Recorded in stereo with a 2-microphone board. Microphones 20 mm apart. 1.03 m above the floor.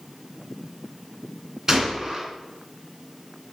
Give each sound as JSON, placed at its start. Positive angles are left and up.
{"t": 1.7, "sound": "a gunshot", "side_deg": -25, "distance_m": 2.5}